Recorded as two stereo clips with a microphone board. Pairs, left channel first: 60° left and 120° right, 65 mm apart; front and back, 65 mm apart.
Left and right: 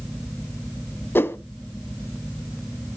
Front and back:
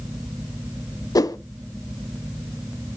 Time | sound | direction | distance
1.1 | a whoosh | 5° left | 0.5 m